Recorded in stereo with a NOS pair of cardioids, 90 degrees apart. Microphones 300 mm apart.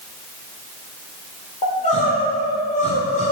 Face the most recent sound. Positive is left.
turn(degrees=25)